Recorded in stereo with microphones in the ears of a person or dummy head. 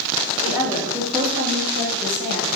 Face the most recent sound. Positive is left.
turn(degrees=-50)  # may be behind; listen again after turning